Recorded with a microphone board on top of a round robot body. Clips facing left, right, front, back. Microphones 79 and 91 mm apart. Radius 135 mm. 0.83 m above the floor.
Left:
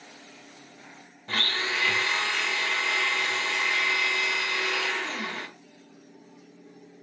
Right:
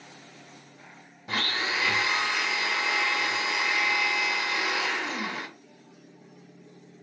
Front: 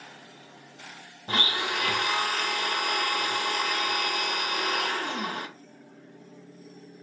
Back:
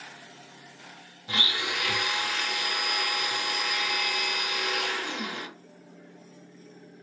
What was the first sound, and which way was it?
A blender, 15° right.